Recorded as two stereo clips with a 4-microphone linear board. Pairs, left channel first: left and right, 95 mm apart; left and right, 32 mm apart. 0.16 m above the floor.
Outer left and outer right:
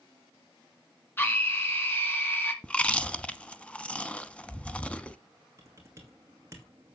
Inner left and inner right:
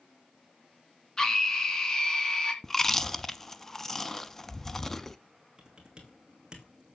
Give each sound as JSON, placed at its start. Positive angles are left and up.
{"t": 1.2, "sound": "a scream", "side_deg": 20, "distance_m": 2.5}
{"t": 2.6, "sound": "chewing", "side_deg": 10, "distance_m": 0.8}
{"t": 5.6, "sound": "typing on a keyboard", "side_deg": -30, "distance_m": 2.5}